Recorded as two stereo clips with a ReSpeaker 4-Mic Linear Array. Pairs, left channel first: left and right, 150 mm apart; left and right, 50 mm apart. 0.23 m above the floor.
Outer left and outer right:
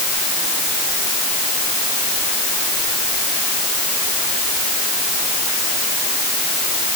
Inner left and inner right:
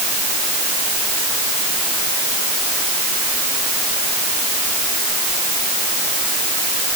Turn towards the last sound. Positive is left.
No sound to turn to.